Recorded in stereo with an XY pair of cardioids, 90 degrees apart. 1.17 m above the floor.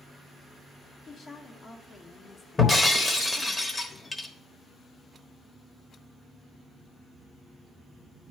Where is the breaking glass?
25° left, 1.3 m.